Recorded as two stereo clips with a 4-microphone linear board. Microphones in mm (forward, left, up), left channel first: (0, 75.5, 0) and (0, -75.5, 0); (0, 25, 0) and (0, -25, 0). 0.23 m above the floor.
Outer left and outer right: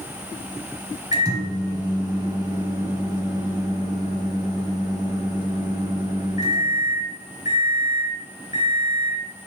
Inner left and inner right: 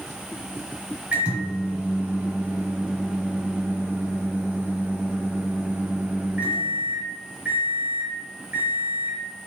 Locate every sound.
1.1 s a microwave: 25° right (ahead or behind), 1.0 m